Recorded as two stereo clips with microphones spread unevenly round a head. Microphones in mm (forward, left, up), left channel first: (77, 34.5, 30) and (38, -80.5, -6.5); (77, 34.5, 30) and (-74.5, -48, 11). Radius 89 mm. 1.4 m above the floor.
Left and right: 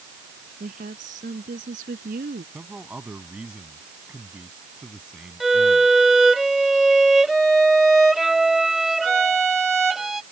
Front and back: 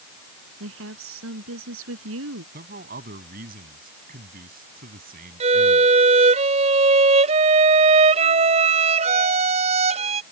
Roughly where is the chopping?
I don't hear chopping.